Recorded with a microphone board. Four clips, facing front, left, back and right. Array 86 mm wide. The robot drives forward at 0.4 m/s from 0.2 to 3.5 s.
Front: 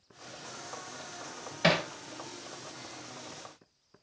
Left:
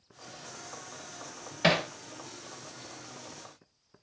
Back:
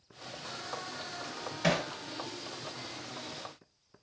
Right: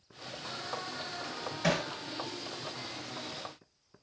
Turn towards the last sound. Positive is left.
turn(degrees=145)